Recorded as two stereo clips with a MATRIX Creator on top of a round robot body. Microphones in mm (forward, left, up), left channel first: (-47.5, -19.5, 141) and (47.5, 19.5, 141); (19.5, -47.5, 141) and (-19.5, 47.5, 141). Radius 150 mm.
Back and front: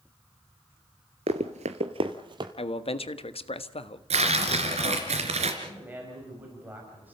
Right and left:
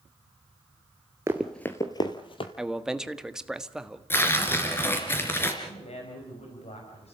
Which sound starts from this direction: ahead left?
Running footsteps, at 1.3 s.